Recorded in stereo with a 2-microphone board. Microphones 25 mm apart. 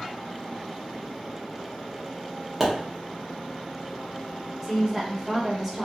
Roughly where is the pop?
Centre.